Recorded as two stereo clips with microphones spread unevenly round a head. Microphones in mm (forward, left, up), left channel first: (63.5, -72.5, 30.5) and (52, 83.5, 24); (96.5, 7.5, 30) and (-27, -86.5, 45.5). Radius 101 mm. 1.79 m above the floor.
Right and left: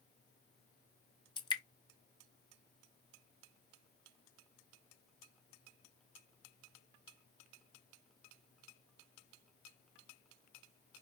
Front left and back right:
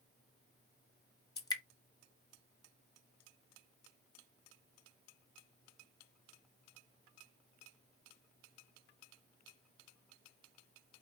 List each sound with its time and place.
1.4 s dripping: 30° right, 1.4 m